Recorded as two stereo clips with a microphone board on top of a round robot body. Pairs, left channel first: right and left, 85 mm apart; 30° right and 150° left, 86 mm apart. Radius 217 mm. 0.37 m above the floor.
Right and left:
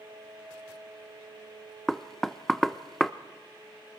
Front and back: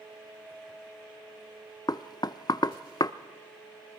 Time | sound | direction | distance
1.9 | knocking | 5° right | 0.9 m